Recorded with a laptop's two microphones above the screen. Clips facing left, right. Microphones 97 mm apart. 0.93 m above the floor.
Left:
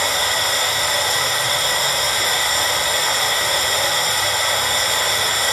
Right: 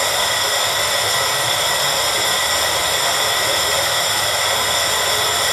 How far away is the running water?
About 1.8 m.